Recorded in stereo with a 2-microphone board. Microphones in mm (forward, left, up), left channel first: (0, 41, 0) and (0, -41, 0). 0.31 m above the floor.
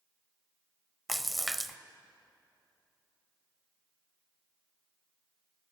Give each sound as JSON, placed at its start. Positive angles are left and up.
{"t": 1.1, "sound": "a splash", "side_deg": 0, "distance_m": 0.6}